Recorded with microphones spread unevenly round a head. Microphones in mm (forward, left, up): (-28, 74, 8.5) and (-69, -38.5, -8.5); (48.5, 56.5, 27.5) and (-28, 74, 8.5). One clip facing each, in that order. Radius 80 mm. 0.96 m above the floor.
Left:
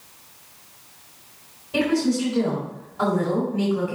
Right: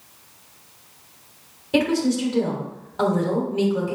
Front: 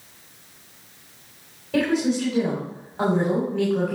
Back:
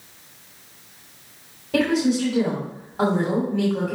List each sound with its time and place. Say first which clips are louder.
1.7 s a woman speaking: right 1 dB, back 1 dB; 105° right, 3 m